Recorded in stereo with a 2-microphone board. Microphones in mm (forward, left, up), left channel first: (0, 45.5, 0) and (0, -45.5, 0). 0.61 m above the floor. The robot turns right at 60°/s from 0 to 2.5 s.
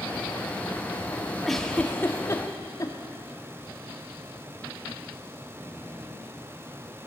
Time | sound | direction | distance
1.4 | a giggle | centre (ahead or behind) | 0.9 m